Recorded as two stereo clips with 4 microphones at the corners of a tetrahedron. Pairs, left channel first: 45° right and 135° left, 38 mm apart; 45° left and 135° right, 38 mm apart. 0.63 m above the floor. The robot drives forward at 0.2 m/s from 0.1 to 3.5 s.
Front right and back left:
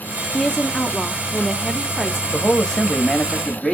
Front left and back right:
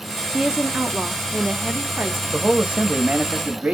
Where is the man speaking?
95° right, 0.7 m; by 3.8 s 125° right, 0.7 m.